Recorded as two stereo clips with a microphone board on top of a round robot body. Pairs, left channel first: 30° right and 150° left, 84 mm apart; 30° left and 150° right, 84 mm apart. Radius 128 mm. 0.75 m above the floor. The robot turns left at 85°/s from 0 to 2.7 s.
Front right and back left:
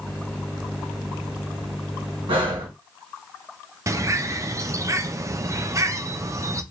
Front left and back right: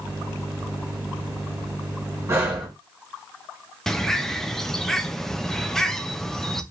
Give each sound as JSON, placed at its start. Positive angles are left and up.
{"t": 2.3, "sound": "breathing", "azimuth_deg": 155, "distance_m": 1.8}
{"t": 3.9, "sound": "a bird", "azimuth_deg": 115, "distance_m": 0.7}